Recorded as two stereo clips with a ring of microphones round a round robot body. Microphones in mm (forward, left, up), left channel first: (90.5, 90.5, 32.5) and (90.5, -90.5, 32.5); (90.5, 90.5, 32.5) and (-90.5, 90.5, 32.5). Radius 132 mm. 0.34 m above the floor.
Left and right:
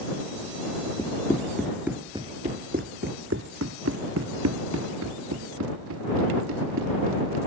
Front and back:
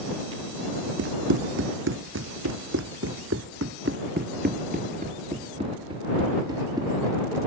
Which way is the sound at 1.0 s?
165° left.